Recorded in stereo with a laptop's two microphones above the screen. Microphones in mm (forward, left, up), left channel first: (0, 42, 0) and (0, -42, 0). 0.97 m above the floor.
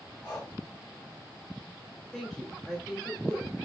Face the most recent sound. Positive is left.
turn(degrees=10)  # may be behind; listen again after turning